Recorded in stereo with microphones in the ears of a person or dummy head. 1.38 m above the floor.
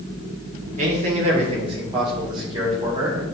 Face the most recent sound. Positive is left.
turn(degrees=-25)  # may be behind; listen again after turning